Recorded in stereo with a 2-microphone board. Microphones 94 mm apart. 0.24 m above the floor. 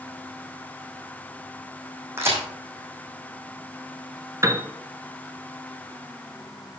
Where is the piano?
30° right (ahead or behind), 0.7 m.